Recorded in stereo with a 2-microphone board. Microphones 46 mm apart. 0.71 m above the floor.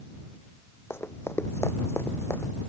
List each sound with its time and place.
0.9 s running footsteps: 70° left (ahead or behind); by 2.5 s 75° left (ahead or behind)